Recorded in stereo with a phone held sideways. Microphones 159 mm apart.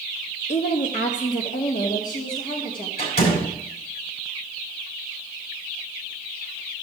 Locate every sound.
0.5 s a woman speaking: 45° left (ahead or behind), 0.6 m; by 2.9 s 60° left (ahead or behind), 1.8 m
3.0 s a door slam: 80° left, 4.5 m